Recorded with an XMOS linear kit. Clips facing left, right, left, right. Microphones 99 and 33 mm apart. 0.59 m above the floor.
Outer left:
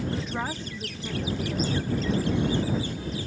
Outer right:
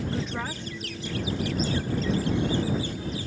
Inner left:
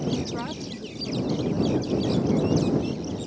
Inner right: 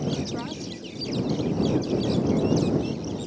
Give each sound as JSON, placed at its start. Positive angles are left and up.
{"t": 0.1, "sound": "a woman speaking", "side_deg": -15}